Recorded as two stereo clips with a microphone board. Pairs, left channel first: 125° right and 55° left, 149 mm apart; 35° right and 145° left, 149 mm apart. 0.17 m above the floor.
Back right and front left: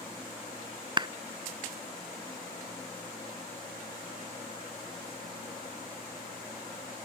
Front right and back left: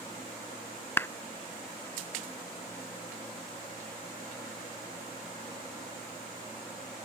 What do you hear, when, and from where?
1.0 s a clap: 30° left